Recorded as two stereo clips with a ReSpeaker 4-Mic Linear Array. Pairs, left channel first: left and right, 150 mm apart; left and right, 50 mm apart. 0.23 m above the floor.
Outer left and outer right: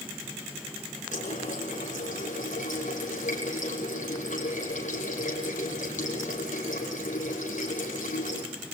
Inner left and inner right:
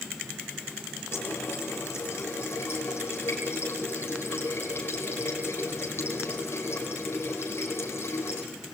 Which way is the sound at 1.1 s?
55° left (ahead or behind).